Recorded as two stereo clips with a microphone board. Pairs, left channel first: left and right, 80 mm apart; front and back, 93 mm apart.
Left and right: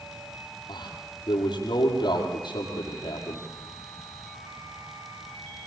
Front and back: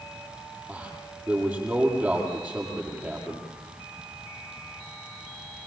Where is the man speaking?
110° left, 8 m.